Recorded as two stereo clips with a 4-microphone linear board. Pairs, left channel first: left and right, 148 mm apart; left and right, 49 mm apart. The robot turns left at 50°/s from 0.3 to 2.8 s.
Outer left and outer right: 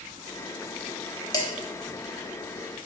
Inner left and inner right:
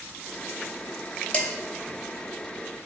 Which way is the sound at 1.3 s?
25° left (ahead or behind).